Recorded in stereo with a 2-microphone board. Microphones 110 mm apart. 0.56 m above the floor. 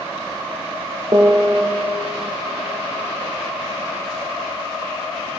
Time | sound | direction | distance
1.1 | a piano | 35° right (ahead or behind) | 0.5 m